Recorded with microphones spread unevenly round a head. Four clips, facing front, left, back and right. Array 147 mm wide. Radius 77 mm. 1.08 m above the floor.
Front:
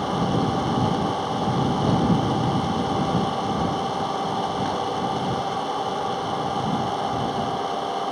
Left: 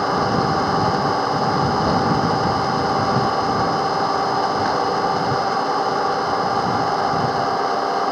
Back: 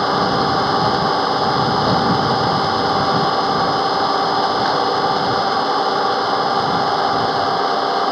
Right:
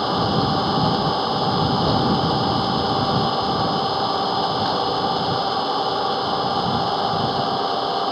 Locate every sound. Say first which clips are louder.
0.0 s an engine running: left 2 dB, back 7 dB; 155° left